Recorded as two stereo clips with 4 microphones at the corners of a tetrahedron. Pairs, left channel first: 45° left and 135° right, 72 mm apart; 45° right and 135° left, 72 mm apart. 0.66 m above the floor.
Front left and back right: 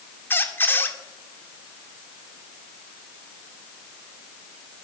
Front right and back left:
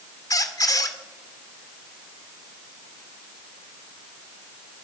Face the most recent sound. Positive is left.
turn(degrees=-15)